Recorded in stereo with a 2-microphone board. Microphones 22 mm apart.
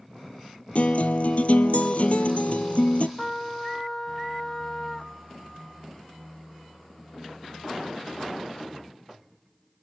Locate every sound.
0.8 s a guitar: 70° left (ahead or behind), 0.9 m
3.2 s a trumpet: 10° left (ahead or behind), 0.8 m